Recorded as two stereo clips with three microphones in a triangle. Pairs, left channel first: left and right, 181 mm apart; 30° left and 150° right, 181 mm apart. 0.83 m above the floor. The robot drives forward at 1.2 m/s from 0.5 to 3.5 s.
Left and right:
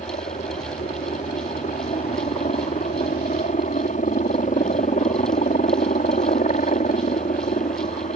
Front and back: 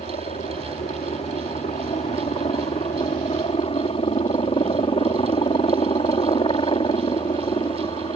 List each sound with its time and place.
0.0 s a helicopter: 65° left; by 8.2 s 80° left